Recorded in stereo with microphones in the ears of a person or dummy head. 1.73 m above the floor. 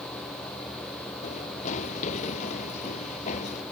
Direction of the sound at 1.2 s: 40° left (ahead or behind).